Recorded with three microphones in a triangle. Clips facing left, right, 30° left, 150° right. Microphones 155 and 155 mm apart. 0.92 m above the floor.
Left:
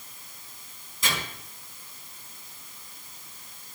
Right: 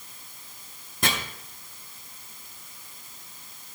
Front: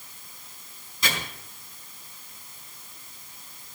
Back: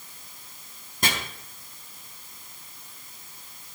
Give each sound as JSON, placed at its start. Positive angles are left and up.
{"t": 1.0, "sound": "chopping", "azimuth_deg": -115, "distance_m": 4.5}